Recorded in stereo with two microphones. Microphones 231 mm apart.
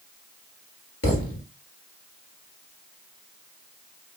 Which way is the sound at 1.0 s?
85° left.